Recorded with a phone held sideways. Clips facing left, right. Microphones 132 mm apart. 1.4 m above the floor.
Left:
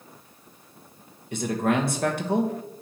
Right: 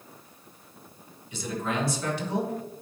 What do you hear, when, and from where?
1.3 s a man speaking: 55° left (ahead or behind), 1.3 m